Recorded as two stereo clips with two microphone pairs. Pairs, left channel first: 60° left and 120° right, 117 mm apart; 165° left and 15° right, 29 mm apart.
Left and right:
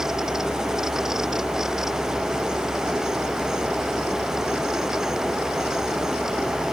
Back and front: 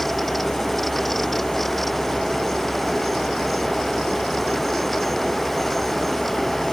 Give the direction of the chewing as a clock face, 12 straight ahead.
I don't hear chewing.